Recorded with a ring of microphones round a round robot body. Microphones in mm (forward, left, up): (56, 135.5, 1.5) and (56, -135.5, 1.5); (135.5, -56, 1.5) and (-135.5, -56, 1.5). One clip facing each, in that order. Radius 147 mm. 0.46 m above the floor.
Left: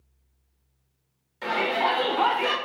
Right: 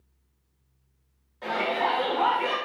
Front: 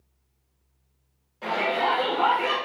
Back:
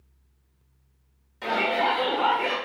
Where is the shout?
130° left, 1.1 m; by 2.6 s 65° left, 0.9 m.